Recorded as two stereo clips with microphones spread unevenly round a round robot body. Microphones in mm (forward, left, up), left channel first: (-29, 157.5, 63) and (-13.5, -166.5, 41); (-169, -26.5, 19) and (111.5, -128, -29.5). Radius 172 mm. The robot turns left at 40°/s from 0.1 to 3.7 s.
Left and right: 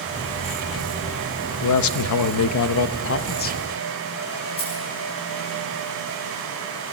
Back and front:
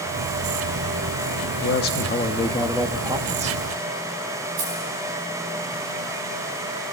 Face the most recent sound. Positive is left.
turn(degrees=20)